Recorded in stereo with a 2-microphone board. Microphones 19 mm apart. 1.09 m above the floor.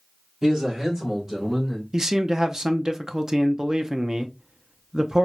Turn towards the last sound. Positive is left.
turn(degrees=-30)  # may be behind; listen again after turning